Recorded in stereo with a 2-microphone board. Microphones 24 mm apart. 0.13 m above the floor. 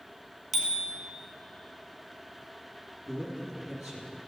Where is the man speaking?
5° left (ahead or behind), 3 m.